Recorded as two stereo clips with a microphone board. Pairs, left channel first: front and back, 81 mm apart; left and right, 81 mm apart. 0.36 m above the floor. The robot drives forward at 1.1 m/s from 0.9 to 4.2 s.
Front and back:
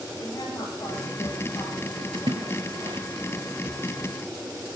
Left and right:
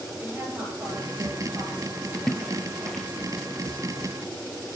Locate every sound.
0.2 s a woman speaking: 35° right, 8 m; by 2.0 s 40° right, 7 m
2.1 s a splash: 175° left, 2 m